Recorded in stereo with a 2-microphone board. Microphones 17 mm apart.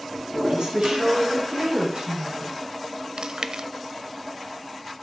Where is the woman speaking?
70° right (ahead or behind), 4 m.